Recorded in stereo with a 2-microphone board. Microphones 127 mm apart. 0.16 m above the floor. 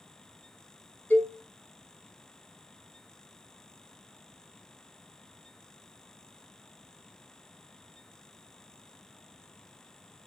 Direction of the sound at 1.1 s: 15° left (ahead or behind).